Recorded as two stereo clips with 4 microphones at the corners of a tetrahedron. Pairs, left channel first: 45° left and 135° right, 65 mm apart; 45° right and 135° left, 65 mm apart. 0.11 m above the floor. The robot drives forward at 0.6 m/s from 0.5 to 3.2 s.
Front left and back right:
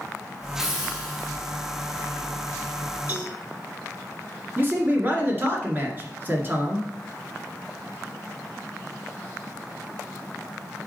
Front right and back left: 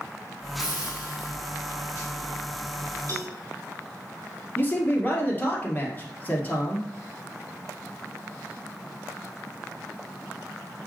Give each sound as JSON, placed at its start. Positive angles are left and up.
{"t": 0.6, "sound": "a hiss", "azimuth_deg": -55, "distance_m": 4.0}
{"t": 3.1, "sound": "a cowbell", "azimuth_deg": 170, "distance_m": 3.0}
{"t": 4.6, "sound": "a man speaking", "azimuth_deg": -95, "distance_m": 1.9}